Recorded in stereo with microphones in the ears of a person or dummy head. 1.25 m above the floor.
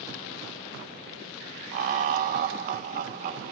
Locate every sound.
1.7 s laughter: 50° right (ahead or behind), 0.8 m